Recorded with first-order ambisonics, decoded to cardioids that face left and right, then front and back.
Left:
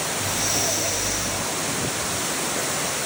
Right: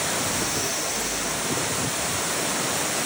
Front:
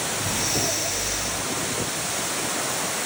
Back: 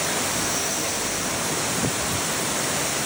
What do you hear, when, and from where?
0.2 s breathing: 80° left, 3.5 m